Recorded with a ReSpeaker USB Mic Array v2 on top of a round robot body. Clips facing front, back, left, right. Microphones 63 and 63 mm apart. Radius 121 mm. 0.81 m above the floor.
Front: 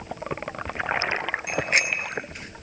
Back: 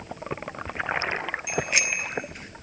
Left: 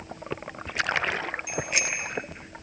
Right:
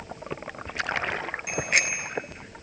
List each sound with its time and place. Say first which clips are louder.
1.5 s a bicycle bell: front 3 dB, right 6 dB; 50° right, 3 m